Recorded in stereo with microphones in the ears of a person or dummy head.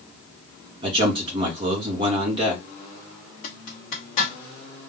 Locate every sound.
0.8 s a man speaking: 25° right (ahead or behind), 1.6 m
3.4 s a zipper: 45° left (ahead or behind), 1.2 m